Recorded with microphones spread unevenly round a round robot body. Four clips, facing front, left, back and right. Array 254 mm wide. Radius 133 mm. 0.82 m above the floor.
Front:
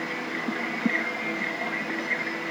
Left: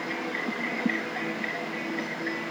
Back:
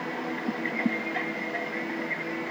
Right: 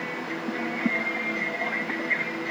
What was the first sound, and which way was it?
Only background noise.